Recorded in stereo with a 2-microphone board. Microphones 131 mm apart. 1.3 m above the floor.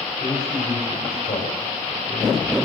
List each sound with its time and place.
0.2 s a man speaking: 75° left (ahead or behind), 5 m